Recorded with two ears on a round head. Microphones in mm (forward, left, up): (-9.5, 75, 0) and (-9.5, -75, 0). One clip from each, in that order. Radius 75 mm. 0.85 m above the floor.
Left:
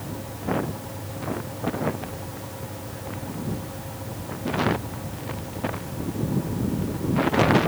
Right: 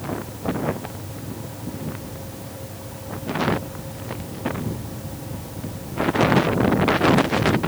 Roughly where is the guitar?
I don't hear a guitar.